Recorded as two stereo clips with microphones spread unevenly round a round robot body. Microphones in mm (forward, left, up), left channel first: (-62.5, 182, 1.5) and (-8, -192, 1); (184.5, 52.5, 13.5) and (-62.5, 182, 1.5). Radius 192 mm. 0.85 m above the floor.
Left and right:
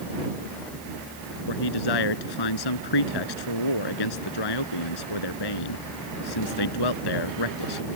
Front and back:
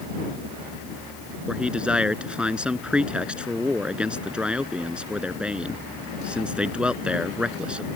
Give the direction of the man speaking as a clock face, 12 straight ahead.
10 o'clock.